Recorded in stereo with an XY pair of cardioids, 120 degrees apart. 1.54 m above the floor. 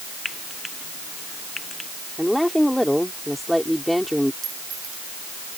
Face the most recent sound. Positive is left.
turn(degrees=-50)